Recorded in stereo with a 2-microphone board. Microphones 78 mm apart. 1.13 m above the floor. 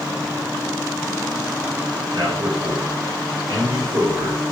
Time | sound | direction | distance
2.1 | a man speaking | 60° right (ahead or behind) | 5.5 m